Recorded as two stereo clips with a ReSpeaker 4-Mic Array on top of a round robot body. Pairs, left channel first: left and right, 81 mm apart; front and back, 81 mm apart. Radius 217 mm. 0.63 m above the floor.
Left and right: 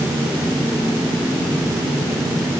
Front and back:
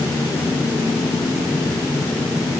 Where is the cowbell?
No cowbell in this recording.